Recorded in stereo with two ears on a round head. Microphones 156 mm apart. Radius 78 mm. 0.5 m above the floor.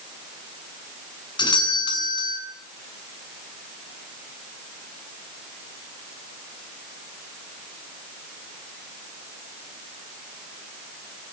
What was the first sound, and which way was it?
A doorbell, 25° left (ahead or behind).